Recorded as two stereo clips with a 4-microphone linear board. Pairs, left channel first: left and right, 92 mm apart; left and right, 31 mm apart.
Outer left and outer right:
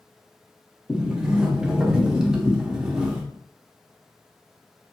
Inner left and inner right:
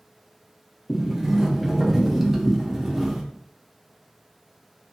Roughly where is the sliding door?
Centre.